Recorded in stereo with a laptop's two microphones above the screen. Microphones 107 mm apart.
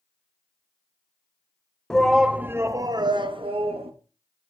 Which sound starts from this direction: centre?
A shout, at 1.9 s.